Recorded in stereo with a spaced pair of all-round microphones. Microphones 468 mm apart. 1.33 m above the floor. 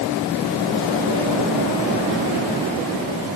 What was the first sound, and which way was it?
Only background noise.